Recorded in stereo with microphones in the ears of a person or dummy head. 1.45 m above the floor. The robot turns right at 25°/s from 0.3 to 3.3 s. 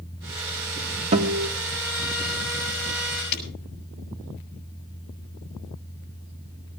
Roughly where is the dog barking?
No dog barking in this recording.